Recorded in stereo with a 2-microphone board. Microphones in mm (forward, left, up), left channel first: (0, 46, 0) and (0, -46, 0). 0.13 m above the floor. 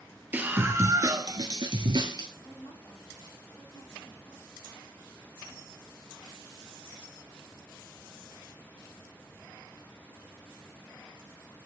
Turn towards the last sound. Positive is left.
turn(degrees=55)  # may be behind; listen again after turning